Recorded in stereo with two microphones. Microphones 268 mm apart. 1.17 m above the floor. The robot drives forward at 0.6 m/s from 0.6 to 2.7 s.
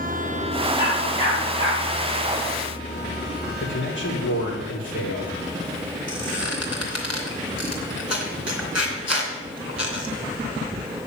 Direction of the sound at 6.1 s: 70° left (ahead or behind).